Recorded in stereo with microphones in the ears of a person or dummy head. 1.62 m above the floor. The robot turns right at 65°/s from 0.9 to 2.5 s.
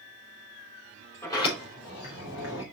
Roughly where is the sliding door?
Centre.